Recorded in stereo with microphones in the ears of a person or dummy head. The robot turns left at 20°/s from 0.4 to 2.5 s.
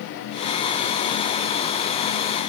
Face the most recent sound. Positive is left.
No sound to turn to.